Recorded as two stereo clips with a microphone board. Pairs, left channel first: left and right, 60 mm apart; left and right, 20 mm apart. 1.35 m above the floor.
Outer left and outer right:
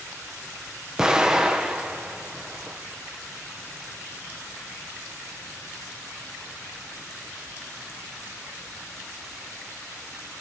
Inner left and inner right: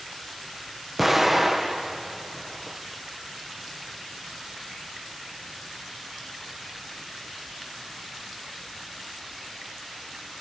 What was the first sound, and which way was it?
An explosion, 10° right (ahead or behind).